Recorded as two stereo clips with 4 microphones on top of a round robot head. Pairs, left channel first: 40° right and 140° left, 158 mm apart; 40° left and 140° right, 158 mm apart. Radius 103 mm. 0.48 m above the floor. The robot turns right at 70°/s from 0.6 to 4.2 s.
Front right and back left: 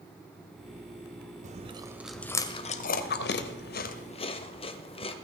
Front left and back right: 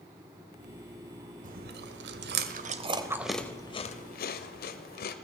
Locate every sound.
1.4 s chewing: straight behind, 0.8 m; by 5.2 s 15° left, 0.8 m